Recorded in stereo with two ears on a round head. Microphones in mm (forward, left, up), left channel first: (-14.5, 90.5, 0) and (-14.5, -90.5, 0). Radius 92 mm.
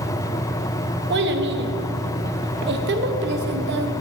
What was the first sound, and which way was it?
A child speaking, 60° right (ahead or behind).